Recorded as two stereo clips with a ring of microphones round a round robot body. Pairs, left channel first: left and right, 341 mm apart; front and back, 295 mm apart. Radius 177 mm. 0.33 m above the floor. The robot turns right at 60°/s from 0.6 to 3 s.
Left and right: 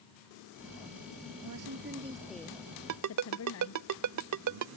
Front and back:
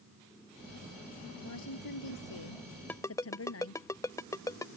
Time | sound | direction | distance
1.4 | a woman speaking | 55° right | ?
2.9 | a ringtone | 85° right | ?